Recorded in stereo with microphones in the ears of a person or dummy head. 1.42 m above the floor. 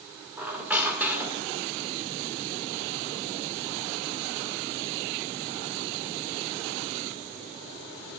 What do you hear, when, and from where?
0.4 s a squeak: 5° right (ahead or behind), 1.3 m